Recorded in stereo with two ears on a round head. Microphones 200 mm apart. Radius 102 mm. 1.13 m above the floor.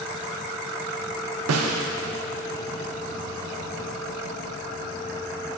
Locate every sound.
1.5 s a snare drum: 70° right (ahead or behind), 0.7 m